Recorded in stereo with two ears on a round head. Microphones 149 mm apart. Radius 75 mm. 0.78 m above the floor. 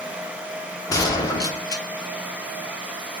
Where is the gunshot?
20° left (ahead or behind), 1.0 m.